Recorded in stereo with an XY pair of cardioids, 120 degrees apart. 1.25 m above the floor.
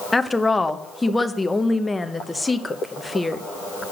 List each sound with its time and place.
0.1 s a woman speaking: 10° left, 0.9 m